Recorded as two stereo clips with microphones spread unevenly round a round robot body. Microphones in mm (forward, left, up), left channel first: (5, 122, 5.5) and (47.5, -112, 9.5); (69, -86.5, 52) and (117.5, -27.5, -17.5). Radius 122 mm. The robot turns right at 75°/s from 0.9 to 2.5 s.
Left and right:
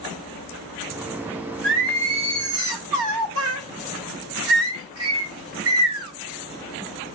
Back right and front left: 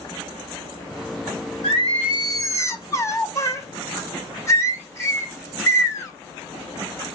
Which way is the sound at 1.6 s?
120° right.